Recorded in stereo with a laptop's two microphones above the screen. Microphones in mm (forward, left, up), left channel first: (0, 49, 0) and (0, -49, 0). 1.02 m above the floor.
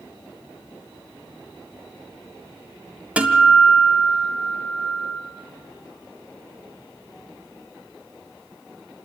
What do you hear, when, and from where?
3.2 s a guitar: 10° right (ahead or behind), 1.8 m